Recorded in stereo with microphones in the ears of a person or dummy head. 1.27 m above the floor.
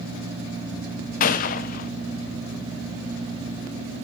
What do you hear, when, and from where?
1.2 s a gunshot: 50° left (ahead or behind), 0.5 m